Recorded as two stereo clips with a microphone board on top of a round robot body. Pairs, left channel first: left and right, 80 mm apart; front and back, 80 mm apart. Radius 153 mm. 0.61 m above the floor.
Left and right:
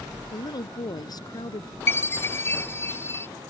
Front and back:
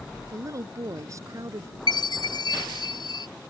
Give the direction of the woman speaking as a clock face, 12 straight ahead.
8 o'clock.